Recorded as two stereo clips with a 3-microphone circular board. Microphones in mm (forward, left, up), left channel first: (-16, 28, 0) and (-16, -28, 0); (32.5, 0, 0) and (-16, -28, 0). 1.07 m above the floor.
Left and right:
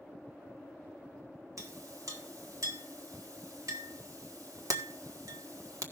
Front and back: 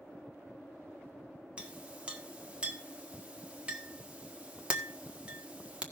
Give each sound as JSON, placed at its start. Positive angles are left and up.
{"t": 1.6, "sound": "a clink", "azimuth_deg": -80, "distance_m": 1.7}